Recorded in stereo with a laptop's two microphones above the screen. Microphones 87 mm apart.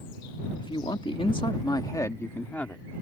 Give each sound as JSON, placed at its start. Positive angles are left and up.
{"t": 0.6, "sound": "a man speaking", "side_deg": 75}